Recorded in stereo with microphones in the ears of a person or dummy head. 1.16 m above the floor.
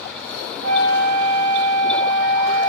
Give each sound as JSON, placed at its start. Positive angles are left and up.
{"t": 0.6, "sound": "a flute", "side_deg": -40, "distance_m": 0.8}